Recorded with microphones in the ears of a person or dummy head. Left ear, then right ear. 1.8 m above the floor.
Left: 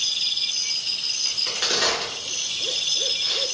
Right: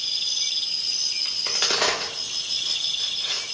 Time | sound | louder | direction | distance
1.2 | a crack | left 1 dB | 25° right (ahead or behind) | 0.6 m